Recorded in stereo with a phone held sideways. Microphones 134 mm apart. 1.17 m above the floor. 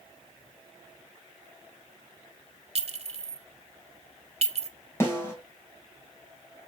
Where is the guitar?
No guitar in this recording.